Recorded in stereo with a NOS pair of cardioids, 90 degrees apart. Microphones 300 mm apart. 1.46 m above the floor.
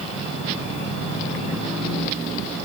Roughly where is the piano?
I don't hear a piano.